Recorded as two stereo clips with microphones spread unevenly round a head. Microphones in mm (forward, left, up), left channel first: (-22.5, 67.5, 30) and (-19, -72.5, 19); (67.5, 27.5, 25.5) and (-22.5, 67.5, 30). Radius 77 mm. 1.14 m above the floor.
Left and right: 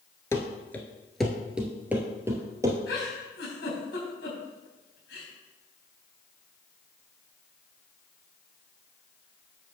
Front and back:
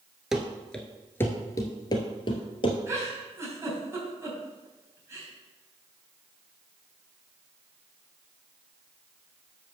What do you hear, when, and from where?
0.3 s running footsteps: 85° left, 1.1 m; by 2.8 s 20° right, 1.6 m
2.9 s a giggle: 95° left, 4.5 m